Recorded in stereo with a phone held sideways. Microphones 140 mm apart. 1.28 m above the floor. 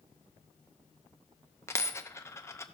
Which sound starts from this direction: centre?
A dropped coin, at 1.7 s.